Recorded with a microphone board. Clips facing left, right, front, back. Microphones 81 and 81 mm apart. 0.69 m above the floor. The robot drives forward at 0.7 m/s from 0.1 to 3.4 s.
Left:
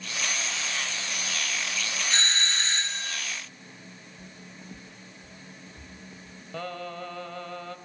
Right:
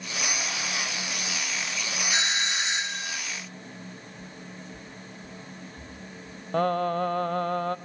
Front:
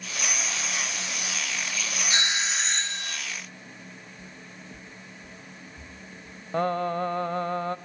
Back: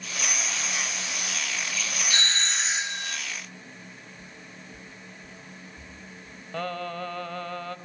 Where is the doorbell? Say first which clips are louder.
Right 1 dB, front 1 dB; 30° right, 0.9 m; by 3.2 s 155° right, 1.0 m.